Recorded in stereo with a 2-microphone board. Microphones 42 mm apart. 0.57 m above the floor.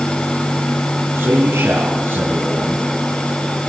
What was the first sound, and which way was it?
A man speaking, 75° right (ahead or behind).